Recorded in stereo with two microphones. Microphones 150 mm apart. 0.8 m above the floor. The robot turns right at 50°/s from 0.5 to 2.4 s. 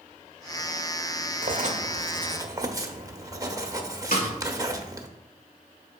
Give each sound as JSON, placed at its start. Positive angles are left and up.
{"t": 1.4, "sound": "writing", "azimuth_deg": -75, "distance_m": 0.8}
{"t": 4.1, "sound": "a snare drum", "side_deg": 75, "distance_m": 2.0}